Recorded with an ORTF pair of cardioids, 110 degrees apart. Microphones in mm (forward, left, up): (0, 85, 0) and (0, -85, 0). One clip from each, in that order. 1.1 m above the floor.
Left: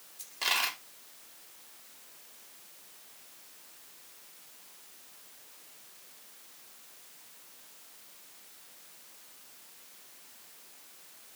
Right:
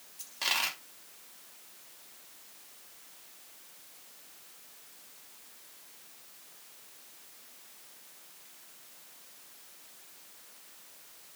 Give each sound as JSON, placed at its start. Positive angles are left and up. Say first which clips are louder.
{"t": 0.2, "sound": "a dropped coin", "louder": "left 1 dB", "azimuth_deg": 0, "distance_m": 1.2}